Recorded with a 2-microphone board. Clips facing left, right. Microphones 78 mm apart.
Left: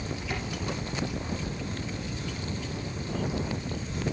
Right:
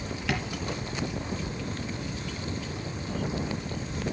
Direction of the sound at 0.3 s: 75° right (ahead or behind).